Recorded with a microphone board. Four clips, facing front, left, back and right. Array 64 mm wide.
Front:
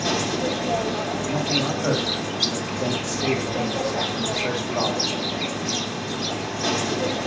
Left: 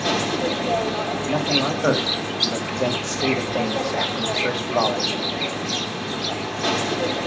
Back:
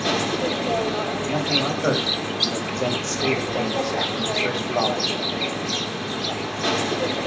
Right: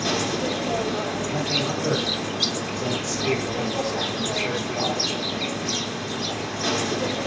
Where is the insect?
140° left, 1.2 m.